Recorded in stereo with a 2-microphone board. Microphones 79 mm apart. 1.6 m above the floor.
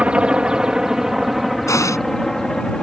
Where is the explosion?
40° left (ahead or behind).